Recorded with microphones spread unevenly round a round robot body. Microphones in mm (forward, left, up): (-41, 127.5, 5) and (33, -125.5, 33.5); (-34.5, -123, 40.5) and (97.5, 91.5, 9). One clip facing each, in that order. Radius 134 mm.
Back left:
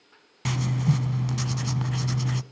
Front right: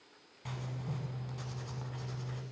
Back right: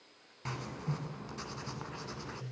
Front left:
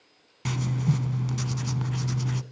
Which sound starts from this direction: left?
Writing, at 0.5 s.